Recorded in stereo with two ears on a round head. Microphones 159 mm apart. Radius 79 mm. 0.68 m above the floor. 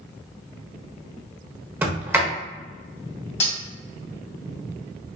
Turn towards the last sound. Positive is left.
turn(degrees=40)  # may be behind; listen again after turning